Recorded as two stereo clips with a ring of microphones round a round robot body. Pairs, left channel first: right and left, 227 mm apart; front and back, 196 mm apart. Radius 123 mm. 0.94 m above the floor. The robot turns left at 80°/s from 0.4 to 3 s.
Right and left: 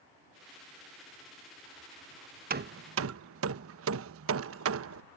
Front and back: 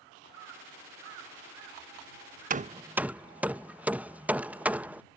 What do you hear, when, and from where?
2.5 s hammering: 140° left; by 5.0 s 100° left